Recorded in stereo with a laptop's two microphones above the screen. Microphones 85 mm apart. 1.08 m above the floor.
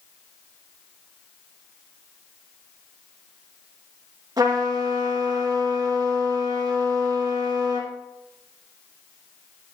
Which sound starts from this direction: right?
A trumpet, at 4.4 s.